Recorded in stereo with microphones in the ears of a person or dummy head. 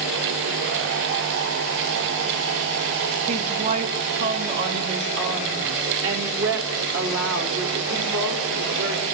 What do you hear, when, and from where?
3.3 s a woman speaking: 45° right (ahead or behind), 3 m; by 9.1 s 85° right, 5.5 m